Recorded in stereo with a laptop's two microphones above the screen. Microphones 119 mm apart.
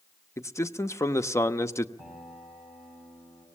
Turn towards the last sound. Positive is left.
turn(degrees=0)  # may be behind; listen again after turning